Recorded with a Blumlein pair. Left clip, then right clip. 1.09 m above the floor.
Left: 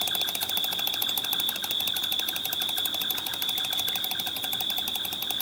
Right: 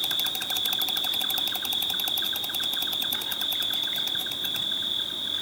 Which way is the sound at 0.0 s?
10° right.